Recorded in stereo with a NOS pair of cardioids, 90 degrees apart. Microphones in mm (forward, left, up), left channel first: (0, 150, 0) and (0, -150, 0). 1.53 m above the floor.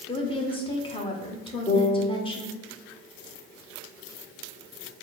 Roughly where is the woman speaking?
Ahead.